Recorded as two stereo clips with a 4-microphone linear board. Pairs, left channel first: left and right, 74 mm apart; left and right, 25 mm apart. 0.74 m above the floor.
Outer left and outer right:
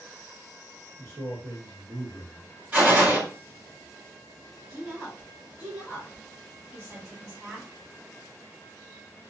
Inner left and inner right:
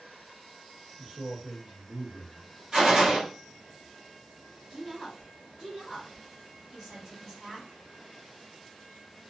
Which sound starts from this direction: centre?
A woman speaking, at 4.7 s.